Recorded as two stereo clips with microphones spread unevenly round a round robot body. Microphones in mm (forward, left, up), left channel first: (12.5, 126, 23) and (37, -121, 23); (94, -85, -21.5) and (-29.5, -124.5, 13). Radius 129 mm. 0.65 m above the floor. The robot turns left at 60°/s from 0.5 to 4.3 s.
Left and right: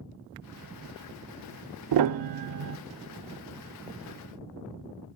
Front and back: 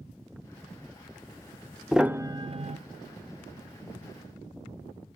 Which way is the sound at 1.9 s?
75° right.